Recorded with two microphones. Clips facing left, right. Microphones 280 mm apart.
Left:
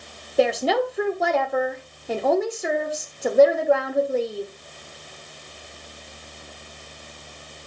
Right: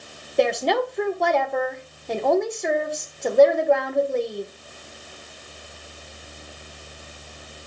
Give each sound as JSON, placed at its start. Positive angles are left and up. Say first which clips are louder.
{"t": 0.4, "sound": "a woman speaking", "louder": "left 1 dB", "side_deg": 5, "distance_m": 1.3}